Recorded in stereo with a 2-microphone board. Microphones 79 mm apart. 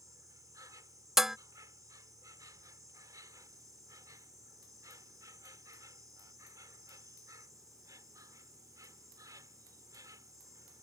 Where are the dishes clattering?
5° right (ahead or behind).